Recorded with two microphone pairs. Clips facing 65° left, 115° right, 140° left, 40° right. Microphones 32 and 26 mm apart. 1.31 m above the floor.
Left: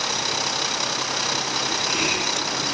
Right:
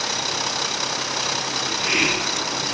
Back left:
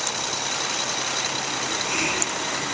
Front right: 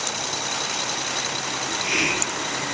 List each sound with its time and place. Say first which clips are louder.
1.6 s a hiss: right 5 dB, front right 4 dB; 85° right, 3 m